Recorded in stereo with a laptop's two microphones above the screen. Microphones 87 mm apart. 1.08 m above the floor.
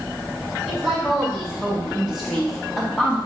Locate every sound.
0.7 s a woman speaking: 5° right (ahead or behind), 1.9 m; by 3.2 s 5° left (ahead or behind), 0.6 m